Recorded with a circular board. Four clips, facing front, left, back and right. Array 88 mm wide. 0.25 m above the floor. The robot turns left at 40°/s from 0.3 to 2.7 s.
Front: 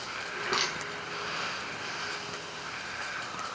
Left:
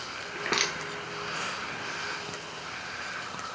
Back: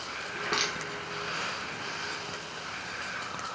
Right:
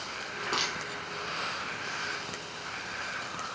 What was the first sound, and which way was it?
Crushing, 95° left.